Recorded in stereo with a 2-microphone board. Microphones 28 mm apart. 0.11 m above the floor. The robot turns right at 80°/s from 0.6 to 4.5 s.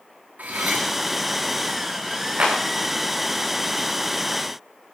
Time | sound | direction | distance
0.4 | cutlery clinking | 80° right | 6 m
2.4 | a clap | 80° right | 6 m